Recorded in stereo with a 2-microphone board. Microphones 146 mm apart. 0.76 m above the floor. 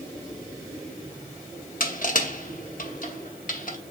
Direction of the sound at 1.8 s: 65° left (ahead or behind).